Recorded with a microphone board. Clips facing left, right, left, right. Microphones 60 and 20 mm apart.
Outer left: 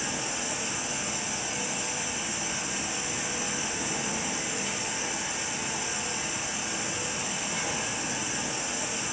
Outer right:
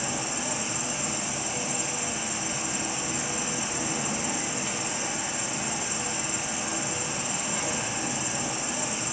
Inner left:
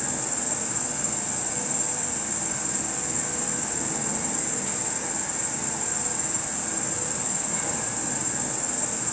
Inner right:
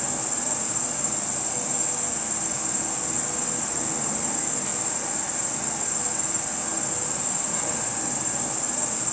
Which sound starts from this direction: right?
An insect, at 0.0 s.